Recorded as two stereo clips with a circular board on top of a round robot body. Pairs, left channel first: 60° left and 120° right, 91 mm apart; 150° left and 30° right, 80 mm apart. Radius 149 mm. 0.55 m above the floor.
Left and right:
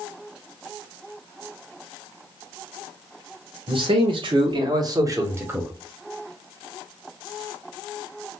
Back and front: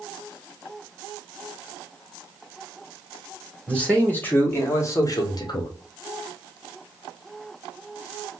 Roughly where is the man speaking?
Behind right.